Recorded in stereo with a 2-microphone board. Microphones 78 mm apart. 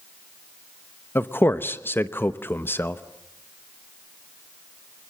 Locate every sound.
1.1 s a man speaking: 25° left (ahead or behind), 0.9 m